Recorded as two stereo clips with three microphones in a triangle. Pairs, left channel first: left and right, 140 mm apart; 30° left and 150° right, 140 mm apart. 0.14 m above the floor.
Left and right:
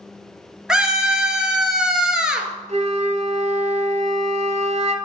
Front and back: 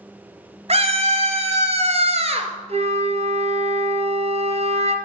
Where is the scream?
175° right, 2.5 m.